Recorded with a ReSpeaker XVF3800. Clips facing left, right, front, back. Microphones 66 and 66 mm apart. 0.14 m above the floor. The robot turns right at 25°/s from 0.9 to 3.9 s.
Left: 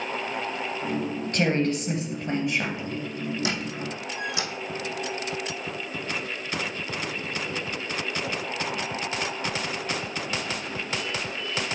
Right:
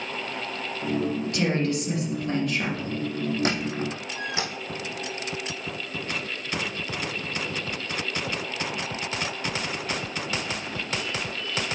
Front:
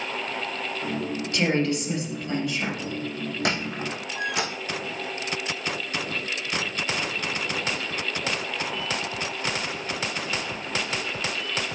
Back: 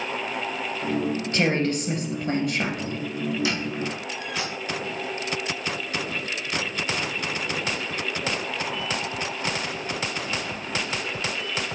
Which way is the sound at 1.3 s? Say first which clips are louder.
Left 3 dB, front 1 dB; 130° left.